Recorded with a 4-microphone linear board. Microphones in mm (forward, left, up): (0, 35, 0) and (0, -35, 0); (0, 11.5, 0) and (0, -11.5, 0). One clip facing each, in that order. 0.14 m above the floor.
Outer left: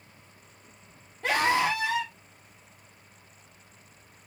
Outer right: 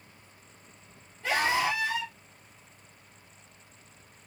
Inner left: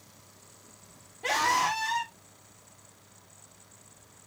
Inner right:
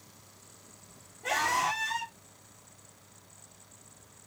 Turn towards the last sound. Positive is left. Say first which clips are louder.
# outer left 2 dB, inner left 3 dB
turn(degrees=65)  # may be behind; listen again after turning